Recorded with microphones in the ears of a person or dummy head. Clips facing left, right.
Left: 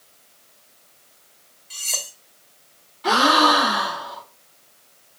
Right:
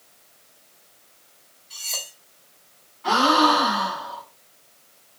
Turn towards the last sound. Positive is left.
turn(degrees=60)  # may be behind; listen again after turning